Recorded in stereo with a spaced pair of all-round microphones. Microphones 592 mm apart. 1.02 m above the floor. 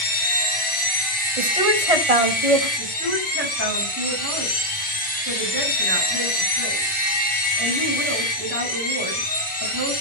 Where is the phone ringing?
I don't hear a phone ringing.